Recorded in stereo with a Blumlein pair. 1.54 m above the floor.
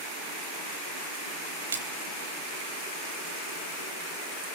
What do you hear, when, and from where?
1.7 s a splash: 65° right, 3.5 m